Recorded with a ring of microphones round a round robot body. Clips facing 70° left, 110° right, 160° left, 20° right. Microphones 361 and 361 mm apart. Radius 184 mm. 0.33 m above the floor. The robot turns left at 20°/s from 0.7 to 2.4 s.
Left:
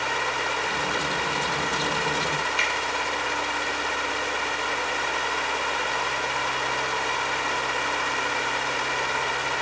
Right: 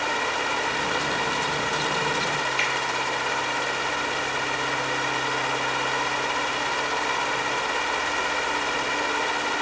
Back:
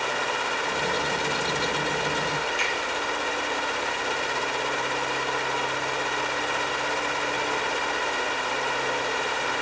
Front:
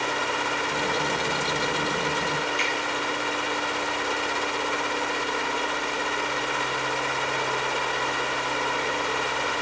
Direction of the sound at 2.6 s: 60° left.